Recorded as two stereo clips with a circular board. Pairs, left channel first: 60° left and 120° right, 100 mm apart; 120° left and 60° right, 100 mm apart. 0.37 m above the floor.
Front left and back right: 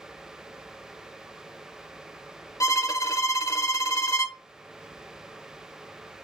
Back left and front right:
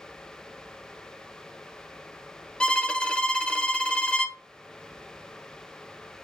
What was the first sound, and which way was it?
A violin, 45° left.